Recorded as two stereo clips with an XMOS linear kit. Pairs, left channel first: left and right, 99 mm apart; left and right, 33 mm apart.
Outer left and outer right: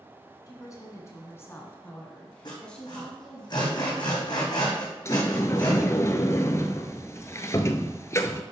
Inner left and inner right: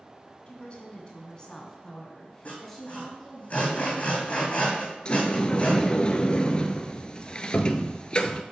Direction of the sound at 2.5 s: 45° left (ahead or behind).